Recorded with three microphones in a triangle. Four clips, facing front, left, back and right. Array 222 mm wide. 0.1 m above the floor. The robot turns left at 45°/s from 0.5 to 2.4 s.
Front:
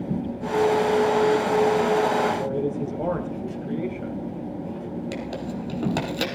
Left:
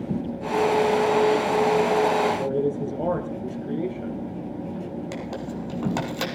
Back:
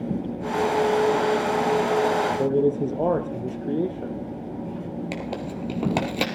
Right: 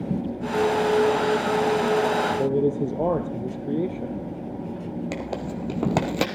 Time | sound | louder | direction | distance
2.4 | a man speaking | right 2 dB, back 5 dB | 140° right | 1.4 m
5.1 | tearing paper | right 2 dB, even | 105° right | 2 m